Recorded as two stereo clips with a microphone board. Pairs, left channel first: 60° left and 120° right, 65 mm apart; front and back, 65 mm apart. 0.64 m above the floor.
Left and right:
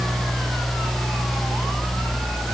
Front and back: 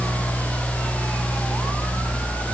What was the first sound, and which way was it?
Only background noise.